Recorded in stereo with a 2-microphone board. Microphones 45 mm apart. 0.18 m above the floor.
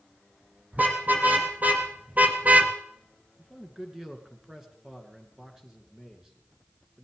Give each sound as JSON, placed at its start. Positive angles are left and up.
{"t": 0.7, "sound": "a car horn", "side_deg": -40, "distance_m": 4.0}
{"t": 3.4, "sound": "a man speaking", "side_deg": -10, "distance_m": 2.5}